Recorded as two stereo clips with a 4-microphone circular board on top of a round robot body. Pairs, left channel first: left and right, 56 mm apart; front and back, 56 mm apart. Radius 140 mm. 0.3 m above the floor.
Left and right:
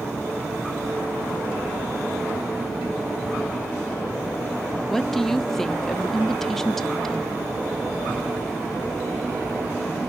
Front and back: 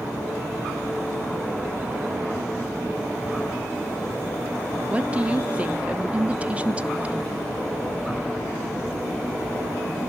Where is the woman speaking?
165° left, 0.9 m.